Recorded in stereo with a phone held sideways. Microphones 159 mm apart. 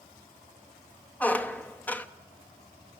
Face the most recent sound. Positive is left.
turn(degrees=10)  # may be behind; listen again after turning